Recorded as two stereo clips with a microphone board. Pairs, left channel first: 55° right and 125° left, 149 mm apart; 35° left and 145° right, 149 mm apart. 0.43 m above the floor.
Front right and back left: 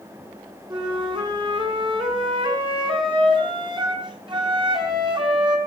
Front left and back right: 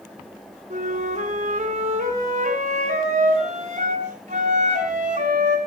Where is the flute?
Straight behind, 5 m.